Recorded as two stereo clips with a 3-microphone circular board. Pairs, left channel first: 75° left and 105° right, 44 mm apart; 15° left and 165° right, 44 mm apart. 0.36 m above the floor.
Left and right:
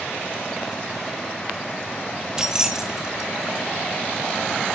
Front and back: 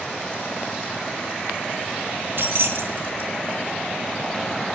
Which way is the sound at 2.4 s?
175° right.